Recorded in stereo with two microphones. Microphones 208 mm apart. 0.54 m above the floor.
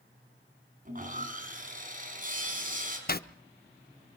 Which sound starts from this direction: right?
Sawing, at 0.8 s.